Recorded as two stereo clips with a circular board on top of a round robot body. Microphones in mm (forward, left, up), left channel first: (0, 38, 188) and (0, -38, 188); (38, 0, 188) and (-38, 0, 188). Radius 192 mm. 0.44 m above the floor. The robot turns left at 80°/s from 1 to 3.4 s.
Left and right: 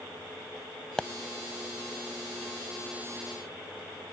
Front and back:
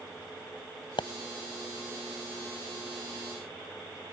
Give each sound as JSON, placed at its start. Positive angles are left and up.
{"t": 1.0, "sound": "a pop", "azimuth_deg": 10}